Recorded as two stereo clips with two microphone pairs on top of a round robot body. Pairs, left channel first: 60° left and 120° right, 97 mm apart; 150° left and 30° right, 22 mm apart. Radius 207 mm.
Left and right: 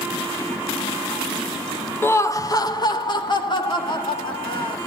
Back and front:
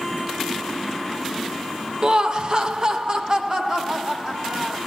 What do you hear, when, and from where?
2.0 s laughter: 5° right, 1.1 m; by 4.8 s 25° left, 4 m